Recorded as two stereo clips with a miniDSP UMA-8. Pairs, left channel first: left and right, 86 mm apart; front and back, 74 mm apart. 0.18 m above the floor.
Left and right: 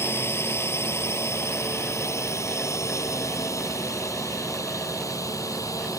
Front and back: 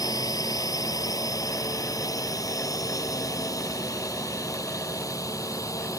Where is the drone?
30° left; by 6.0 s 40° left.